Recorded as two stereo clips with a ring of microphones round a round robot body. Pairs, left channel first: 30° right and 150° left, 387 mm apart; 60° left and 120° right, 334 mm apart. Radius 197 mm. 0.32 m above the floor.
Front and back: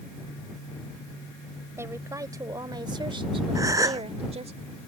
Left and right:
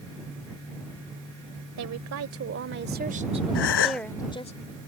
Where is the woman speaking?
130° right; by 4.5 s 100° left.